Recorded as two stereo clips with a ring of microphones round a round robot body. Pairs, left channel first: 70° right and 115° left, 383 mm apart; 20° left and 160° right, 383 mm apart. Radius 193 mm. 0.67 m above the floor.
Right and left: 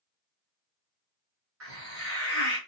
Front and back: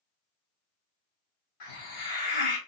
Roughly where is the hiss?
Ahead left.